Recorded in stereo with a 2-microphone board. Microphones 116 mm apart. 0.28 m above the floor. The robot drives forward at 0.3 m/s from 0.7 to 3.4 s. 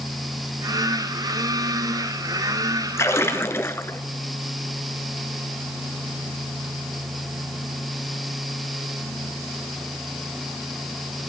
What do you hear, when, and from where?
3.0 s a splash: 25° left (ahead or behind), 0.8 m; by 4.0 s 20° left (ahead or behind), 0.9 m